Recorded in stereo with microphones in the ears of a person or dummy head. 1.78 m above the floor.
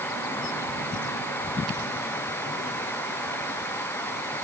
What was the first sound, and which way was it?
Only background noise.